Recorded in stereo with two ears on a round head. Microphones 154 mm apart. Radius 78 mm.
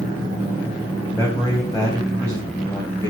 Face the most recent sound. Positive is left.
turn(degrees=15)  # may be behind; listen again after turning